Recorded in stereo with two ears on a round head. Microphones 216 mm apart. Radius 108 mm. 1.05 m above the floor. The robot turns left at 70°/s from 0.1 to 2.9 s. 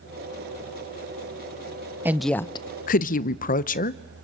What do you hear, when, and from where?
2.0 s a woman speaking: 170° right, 0.7 m; by 4.0 s 130° left, 0.7 m